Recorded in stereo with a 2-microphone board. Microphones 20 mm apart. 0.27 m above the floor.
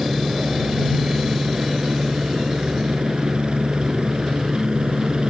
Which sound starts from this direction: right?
A helicopter, at 0.0 s.